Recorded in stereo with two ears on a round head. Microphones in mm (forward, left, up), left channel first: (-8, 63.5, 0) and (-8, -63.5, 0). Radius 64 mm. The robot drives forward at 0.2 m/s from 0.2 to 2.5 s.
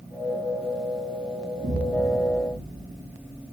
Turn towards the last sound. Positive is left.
turn(degrees=-60)  # may be behind; listen again after turning